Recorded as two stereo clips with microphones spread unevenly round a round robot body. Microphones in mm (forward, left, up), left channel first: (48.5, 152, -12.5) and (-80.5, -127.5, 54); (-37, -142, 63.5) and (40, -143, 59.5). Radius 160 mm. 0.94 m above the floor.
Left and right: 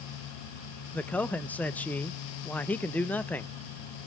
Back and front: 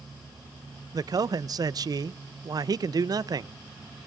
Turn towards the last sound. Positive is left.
turn(degrees=-10)